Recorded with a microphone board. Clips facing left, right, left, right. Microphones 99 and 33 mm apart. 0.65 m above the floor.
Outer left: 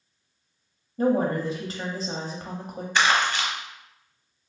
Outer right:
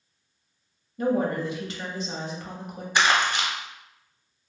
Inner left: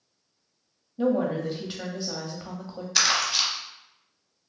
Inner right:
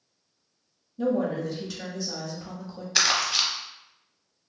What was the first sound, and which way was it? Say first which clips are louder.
A woman speaking: outer left 2 dB, inner left 1 dB; 35° left (ahead or behind).